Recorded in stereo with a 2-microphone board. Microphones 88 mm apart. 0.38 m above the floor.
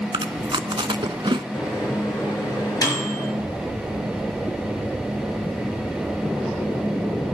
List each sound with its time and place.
0.1 s chewing: 75° right (ahead or behind), 0.6 m
1.5 s a microwave: 45° left (ahead or behind), 6 m